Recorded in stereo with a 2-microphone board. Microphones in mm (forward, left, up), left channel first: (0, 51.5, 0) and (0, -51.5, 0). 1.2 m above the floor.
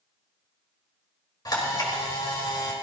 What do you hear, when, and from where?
1.4 s a camera shutter: 40° left (ahead or behind), 4.5 m